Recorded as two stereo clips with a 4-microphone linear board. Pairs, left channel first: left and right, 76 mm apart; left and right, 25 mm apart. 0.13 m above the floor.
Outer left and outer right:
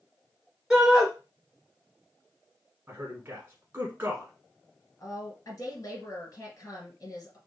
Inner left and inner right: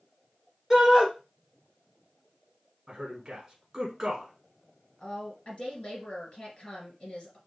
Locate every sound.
0.7 s a shout: 10° right (ahead or behind), 2 m
2.9 s a man speaking: 25° right (ahead or behind), 1.3 m
5.0 s a woman speaking: 45° left (ahead or behind), 2 m